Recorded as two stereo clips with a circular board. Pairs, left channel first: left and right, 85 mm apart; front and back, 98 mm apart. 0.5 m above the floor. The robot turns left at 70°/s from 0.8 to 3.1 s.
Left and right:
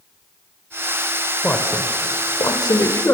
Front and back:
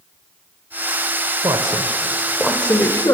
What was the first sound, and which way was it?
A man speaking, 155° left.